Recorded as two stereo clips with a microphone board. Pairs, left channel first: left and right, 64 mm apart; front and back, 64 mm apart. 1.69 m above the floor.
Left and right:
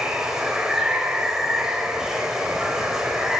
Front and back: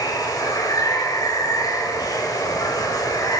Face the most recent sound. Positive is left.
turn(degrees=-10)